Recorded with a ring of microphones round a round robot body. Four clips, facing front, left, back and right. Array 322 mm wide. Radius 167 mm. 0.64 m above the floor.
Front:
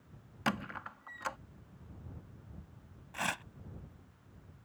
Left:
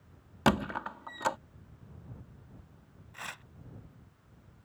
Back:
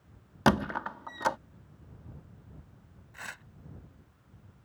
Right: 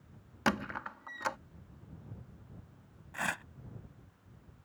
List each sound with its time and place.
0.5 s a squeak: 155° left
3.1 s tearing paper: 45° right